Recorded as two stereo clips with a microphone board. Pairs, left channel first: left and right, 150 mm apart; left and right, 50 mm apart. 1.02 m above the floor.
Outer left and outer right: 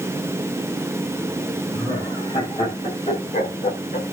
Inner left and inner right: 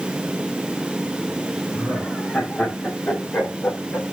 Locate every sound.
1.7 s laughter: 30° left (ahead or behind), 5 m; by 4.0 s 70° left (ahead or behind), 2.5 m